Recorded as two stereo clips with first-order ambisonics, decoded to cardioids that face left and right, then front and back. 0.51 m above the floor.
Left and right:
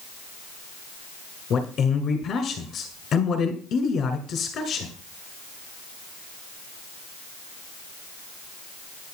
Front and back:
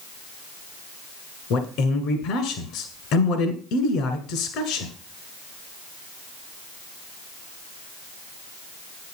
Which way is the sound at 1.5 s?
30° left.